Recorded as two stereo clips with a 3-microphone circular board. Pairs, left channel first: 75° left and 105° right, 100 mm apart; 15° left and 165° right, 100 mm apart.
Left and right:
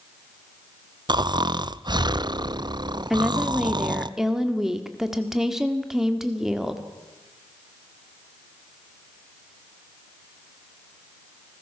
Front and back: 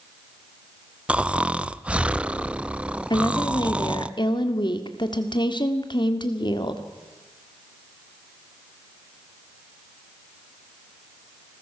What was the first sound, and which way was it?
Snoring, 90° right.